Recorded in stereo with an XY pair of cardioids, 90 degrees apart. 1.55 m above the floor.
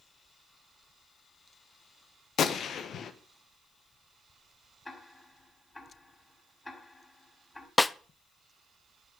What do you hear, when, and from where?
2.4 s a gunshot: 70° left, 1.4 m
4.8 s ticking: 25° left, 4 m
7.8 s a snare drum: 20° left, 0.6 m